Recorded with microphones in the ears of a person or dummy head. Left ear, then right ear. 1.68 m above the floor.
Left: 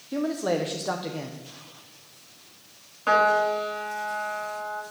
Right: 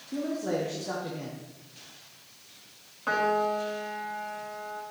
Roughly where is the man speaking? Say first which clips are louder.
Left 4 dB; left.